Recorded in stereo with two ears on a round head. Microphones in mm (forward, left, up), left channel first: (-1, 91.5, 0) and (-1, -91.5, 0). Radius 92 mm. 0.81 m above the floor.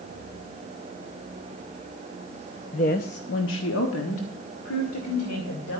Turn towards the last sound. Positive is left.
turn(degrees=85)